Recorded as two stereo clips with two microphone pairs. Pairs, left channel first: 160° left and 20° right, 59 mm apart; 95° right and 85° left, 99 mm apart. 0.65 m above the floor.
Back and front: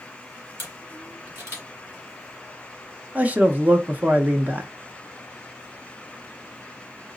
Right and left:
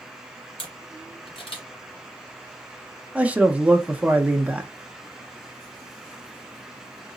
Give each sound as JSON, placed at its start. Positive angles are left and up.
{"t": 0.6, "sound": "a camera shutter", "azimuth_deg": -70, "distance_m": 2.0}
{"t": 3.1, "sound": "a man speaking", "azimuth_deg": 15, "distance_m": 0.6}